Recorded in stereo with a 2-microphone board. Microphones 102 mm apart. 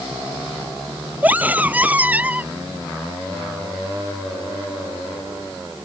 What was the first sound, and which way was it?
A scream, 15° right (ahead or behind).